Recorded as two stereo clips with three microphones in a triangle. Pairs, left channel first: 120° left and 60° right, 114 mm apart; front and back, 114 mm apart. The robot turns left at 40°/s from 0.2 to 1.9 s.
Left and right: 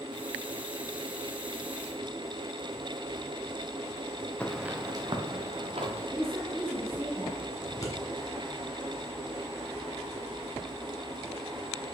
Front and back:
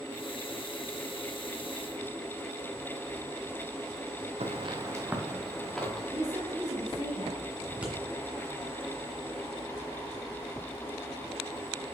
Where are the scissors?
115° left, 1.7 m.